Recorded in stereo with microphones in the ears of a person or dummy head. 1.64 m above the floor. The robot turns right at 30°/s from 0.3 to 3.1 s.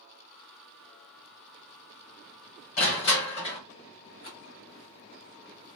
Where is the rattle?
30° left (ahead or behind), 1.3 m.